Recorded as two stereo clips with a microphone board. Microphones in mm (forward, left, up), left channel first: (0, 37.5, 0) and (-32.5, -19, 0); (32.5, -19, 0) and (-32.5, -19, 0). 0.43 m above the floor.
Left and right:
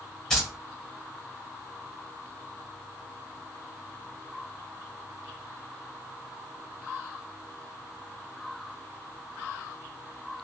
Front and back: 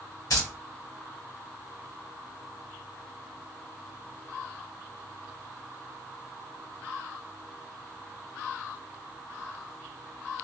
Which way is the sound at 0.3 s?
25° right.